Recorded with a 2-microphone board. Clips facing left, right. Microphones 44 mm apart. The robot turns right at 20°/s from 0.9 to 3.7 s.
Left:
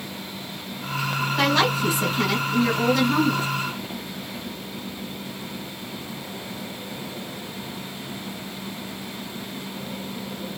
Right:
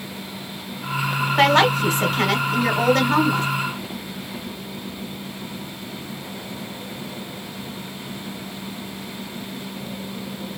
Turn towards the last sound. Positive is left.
turn(degrees=-65)